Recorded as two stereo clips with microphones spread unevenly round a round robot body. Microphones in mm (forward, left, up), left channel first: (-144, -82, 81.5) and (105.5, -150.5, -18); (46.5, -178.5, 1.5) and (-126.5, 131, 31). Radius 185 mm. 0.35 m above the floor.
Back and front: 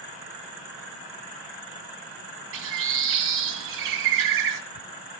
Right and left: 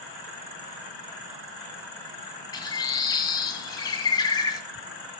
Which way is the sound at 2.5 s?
20° left.